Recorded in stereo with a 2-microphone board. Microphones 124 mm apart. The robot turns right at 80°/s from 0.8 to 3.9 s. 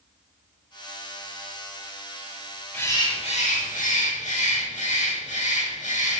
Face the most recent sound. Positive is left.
turn(degrees=110)